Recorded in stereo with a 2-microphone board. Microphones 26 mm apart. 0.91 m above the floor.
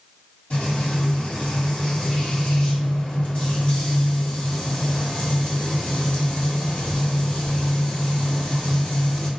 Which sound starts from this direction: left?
Frying, at 0.5 s.